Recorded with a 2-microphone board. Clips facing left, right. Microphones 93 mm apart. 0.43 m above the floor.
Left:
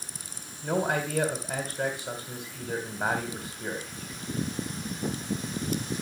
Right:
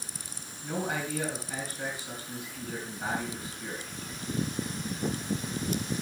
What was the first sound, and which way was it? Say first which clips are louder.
A man speaking: left 5 dB; 65° left (ahead or behind).